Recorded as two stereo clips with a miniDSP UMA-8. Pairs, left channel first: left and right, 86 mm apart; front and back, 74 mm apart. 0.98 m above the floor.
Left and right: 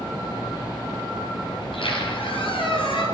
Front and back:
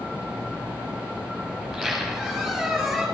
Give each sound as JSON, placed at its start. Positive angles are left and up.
{"t": 1.6, "sound": "a squeak", "azimuth_deg": 90, "distance_m": 6.0}